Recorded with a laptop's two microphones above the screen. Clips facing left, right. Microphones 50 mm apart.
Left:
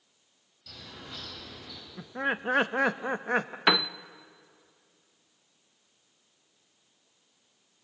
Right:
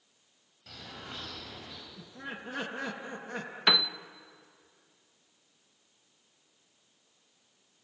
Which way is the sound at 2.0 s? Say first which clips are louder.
Left 13 dB; 60° left (ahead or behind).